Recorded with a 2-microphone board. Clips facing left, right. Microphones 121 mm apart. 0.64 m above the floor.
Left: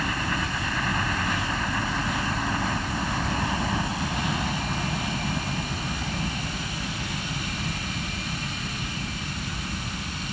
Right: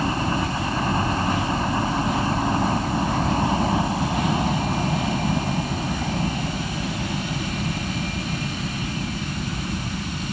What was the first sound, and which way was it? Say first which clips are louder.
A helicopter: right 6 dB; 30° right (ahead or behind).